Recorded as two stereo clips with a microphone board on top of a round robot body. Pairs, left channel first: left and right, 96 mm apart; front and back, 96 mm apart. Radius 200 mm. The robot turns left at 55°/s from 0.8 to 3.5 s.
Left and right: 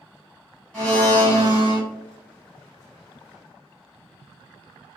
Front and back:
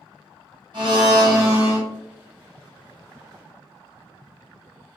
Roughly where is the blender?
Behind.